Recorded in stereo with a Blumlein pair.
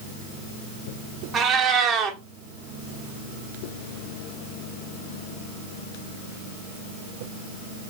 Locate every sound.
1.3 s a cat meowing: 20° right, 1.0 m